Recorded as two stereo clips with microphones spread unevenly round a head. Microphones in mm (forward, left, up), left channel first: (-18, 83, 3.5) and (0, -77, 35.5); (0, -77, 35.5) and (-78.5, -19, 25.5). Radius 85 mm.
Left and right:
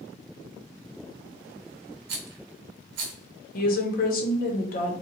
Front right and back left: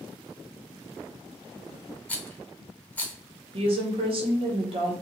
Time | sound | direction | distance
2.1 | a rattle | 115° right | 0.8 m
3.5 | a woman speaking | 120° left | 0.7 m